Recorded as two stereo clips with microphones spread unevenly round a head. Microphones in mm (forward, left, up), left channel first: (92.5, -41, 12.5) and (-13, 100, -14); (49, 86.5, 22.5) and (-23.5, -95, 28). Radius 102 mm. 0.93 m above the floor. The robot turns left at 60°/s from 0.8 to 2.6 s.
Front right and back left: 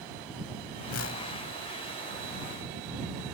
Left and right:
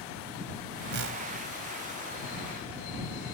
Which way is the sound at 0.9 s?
75° right.